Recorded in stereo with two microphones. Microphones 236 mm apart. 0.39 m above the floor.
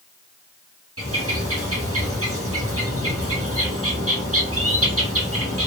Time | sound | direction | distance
1.0 | a bird | 75° right (ahead or behind) | 3 m